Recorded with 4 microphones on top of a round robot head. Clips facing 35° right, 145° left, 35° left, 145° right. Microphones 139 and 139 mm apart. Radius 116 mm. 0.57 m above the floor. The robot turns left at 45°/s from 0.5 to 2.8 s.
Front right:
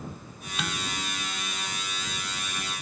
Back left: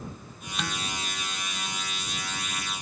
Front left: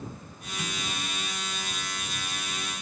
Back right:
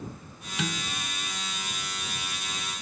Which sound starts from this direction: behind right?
Dishes clattering, at 0.6 s.